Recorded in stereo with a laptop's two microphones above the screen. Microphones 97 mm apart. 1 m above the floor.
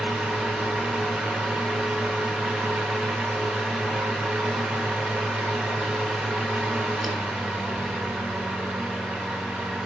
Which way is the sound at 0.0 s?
5° right (ahead or behind).